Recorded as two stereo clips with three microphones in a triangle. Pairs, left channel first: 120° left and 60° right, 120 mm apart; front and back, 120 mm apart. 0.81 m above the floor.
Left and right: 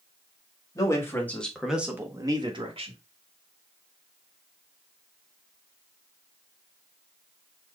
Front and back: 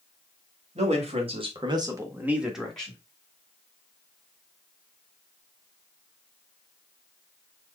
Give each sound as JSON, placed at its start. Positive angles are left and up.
{"t": 0.8, "sound": "a man speaking", "azimuth_deg": 180, "distance_m": 2.0}